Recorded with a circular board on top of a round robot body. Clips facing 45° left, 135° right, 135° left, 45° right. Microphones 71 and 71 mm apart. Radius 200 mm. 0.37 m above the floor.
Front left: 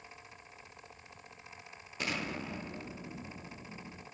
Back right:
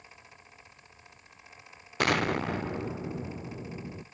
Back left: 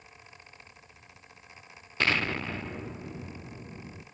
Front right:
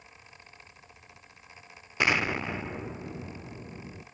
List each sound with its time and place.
2.0 s an explosion: 120° right, 0.8 m